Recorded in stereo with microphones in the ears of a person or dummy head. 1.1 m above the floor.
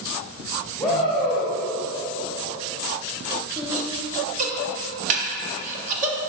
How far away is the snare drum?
About 1.1 m.